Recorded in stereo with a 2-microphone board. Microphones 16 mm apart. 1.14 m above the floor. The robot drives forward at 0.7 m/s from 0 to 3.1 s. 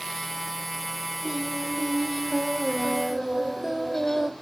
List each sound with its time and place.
1.2 s singing: 15° right (ahead or behind), 2 m; by 4.3 s 30° right (ahead or behind), 1.1 m